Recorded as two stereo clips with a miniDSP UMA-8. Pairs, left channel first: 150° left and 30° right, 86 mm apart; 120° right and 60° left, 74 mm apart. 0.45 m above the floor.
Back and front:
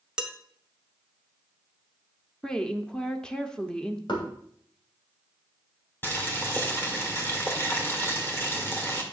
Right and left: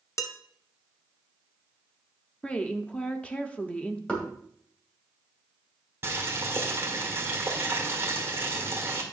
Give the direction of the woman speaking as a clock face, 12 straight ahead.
5 o'clock.